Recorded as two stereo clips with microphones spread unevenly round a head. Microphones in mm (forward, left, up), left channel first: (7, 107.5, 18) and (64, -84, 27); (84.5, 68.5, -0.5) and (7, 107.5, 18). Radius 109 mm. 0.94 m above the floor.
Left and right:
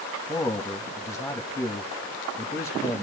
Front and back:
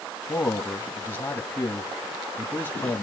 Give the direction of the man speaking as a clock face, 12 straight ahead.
11 o'clock.